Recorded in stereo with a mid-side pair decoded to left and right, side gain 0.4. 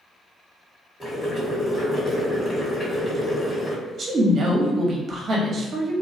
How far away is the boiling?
About 1.4 m.